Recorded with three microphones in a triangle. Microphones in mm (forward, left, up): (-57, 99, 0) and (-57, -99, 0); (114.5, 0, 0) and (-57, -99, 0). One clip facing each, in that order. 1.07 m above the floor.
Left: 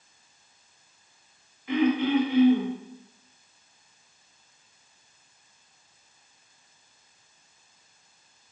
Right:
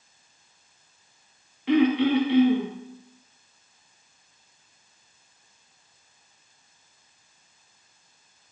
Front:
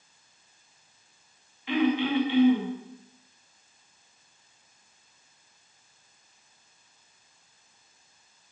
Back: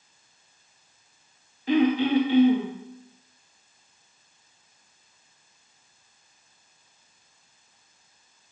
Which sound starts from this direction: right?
Throat clearing, at 1.7 s.